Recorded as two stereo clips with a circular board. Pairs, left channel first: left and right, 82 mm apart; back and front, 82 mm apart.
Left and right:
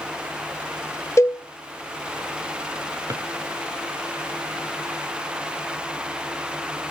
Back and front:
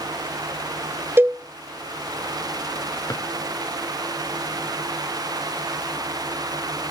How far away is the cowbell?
About 0.6 m.